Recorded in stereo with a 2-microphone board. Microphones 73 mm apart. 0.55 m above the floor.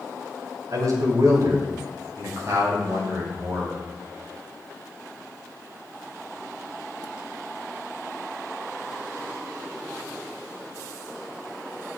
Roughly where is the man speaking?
Right.